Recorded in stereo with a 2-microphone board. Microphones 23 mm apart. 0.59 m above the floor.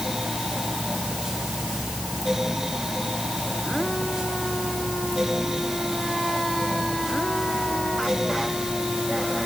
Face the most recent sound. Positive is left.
No sound to turn to.